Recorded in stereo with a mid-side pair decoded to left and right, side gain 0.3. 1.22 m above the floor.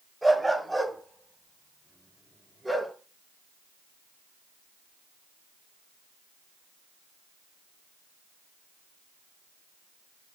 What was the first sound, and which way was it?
A dog barking, 5° right.